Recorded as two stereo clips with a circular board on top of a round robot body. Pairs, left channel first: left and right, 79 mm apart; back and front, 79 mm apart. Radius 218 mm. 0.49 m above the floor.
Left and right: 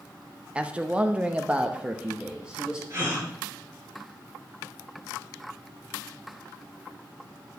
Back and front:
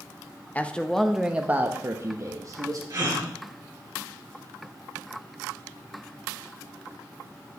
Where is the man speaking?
145° right, 1.2 m; by 2.8 s 15° right, 1.7 m.